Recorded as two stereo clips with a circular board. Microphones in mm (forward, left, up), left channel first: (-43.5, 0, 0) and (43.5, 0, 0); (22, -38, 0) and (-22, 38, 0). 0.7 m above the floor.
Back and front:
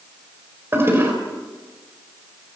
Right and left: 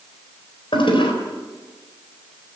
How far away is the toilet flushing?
About 4 m.